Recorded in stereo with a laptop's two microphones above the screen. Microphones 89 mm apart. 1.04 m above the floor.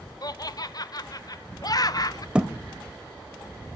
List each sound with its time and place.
0.2 s laughter: 45° left (ahead or behind), 0.5 m
2.4 s a thud: 10° right (ahead or behind), 0.8 m